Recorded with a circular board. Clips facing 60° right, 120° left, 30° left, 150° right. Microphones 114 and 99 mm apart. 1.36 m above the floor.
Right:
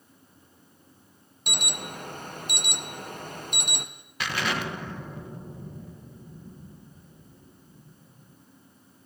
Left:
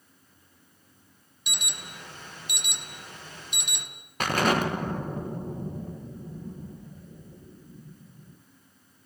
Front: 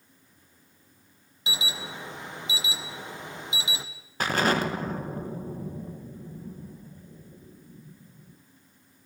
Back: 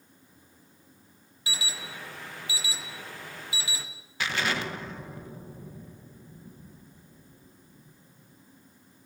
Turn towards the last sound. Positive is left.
turn(degrees=75)